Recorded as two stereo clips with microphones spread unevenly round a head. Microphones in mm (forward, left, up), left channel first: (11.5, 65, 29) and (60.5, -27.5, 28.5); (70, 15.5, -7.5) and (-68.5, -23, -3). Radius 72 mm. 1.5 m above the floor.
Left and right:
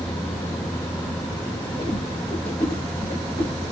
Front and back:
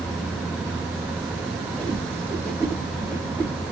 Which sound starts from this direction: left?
A whoosh, at 1.8 s.